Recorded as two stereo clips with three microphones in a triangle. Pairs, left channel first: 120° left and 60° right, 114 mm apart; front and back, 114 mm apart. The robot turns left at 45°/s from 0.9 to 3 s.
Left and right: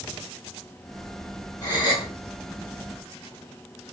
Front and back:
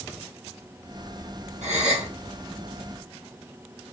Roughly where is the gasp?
Behind.